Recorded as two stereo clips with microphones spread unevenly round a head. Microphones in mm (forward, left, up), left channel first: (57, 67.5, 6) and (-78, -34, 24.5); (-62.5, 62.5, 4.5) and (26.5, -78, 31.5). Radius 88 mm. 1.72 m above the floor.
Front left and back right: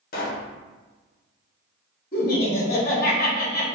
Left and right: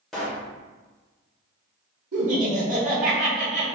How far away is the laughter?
About 1.3 m.